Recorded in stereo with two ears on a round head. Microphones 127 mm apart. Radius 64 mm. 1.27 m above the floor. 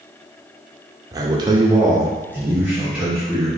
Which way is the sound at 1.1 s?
25° right (ahead or behind).